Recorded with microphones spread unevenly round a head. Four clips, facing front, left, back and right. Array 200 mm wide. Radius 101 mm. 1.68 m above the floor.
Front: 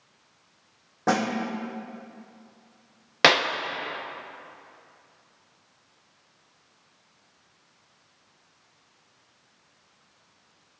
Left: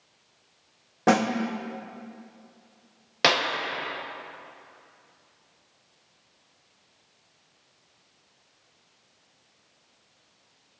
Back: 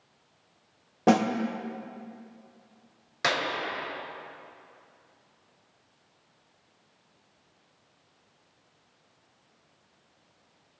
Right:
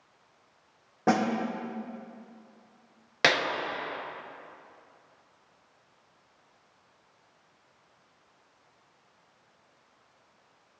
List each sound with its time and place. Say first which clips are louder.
1.1 s a snare drum: left 4 dB, back 3 dB; 155° left, 0.6 m
3.2 s a clap: left 2 dB, front 8 dB; 5° left, 0.7 m